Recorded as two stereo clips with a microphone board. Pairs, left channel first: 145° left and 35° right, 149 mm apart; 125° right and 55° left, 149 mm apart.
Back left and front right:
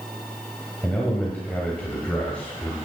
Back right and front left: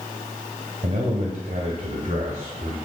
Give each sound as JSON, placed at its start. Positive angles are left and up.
{"t": 0.8, "sound": "a man speaking", "azimuth_deg": 70, "distance_m": 1.6}